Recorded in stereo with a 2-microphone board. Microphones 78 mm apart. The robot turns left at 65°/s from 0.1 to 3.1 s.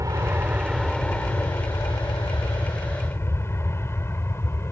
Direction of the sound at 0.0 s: 45° right (ahead or behind).